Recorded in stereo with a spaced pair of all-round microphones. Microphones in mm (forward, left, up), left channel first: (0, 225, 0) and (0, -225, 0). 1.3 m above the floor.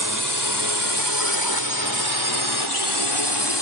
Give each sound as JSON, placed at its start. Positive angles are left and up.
{"t": 0.0, "sound": "a drone", "side_deg": 40}